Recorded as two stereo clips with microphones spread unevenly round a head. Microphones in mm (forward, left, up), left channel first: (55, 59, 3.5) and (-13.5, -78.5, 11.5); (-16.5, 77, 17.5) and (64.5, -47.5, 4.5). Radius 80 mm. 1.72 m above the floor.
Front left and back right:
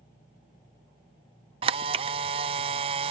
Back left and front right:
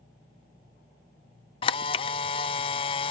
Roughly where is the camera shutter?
Behind.